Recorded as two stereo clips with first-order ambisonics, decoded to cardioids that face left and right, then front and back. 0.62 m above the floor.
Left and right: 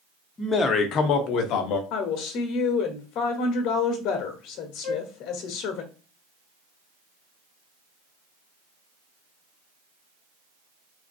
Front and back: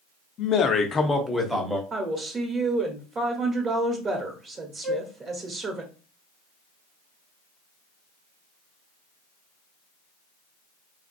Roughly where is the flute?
Left.